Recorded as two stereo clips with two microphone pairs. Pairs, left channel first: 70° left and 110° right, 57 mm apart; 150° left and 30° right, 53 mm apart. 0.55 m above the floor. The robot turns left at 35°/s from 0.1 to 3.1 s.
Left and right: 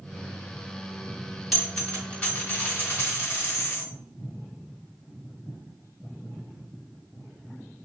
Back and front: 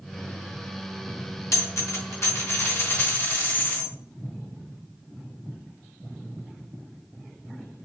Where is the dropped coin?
160° left, 1.6 m; by 3.9 s 105° left, 1.6 m.